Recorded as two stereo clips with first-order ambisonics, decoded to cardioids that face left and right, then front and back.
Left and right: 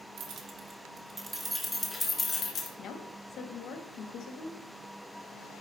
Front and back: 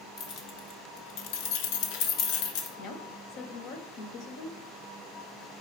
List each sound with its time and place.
0.2 s keys jangling: 45° right, 1.0 m; by 2.7 s 25° left, 1.3 m
2.8 s a woman speaking: 35° left, 1.4 m